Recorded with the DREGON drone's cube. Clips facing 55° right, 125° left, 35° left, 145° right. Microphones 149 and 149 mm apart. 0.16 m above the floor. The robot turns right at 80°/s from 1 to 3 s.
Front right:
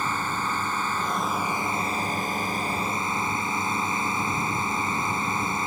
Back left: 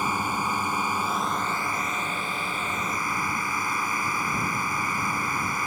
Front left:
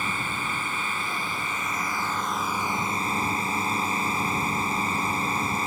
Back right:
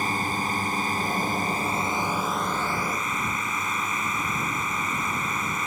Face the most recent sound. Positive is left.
turn(degrees=-5)